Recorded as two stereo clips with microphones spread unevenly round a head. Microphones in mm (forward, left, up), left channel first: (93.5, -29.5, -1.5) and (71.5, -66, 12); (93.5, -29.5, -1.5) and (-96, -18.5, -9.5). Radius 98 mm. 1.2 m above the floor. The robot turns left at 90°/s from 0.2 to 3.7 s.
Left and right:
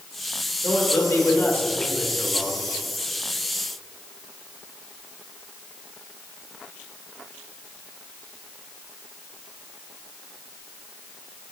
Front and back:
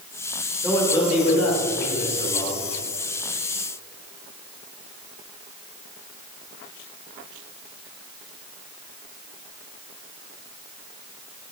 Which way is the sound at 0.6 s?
95° left.